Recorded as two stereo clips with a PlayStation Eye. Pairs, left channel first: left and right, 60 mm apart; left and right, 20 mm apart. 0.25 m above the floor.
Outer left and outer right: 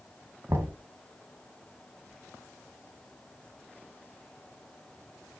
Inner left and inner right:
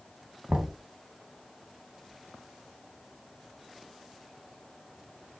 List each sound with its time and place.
0.5 s knocking: 45° right (ahead or behind), 1.7 m